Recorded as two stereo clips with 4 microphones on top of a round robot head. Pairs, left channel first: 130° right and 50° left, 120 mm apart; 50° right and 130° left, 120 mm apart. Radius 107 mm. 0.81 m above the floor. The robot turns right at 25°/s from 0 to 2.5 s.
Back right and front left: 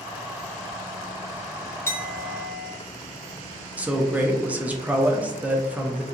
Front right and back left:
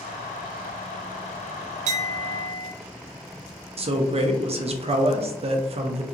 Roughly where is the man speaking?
Behind left.